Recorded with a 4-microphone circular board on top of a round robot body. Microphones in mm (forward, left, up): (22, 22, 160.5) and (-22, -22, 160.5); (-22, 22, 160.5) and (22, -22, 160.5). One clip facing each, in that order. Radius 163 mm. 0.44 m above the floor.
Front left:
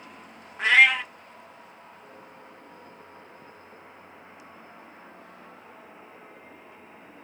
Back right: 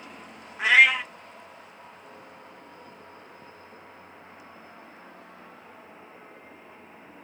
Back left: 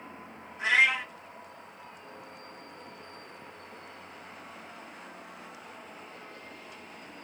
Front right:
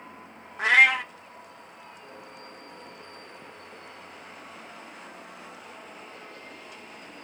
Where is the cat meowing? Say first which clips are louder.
Even, front right 5 dB; 50° right, 0.7 m.